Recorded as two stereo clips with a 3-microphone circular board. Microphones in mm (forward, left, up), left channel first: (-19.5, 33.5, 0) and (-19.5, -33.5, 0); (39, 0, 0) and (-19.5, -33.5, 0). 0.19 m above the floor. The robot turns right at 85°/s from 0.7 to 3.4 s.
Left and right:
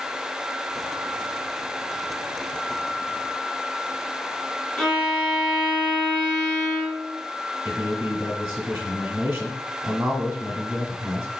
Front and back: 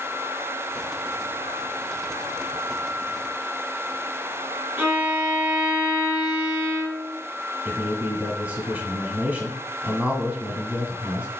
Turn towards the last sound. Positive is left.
turn(degrees=-115)